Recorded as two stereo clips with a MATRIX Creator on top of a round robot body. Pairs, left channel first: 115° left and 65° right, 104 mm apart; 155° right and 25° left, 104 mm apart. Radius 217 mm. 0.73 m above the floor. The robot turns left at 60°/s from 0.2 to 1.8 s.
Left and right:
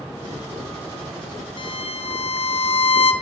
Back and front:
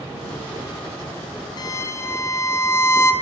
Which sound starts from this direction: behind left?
A violin, at 1.6 s.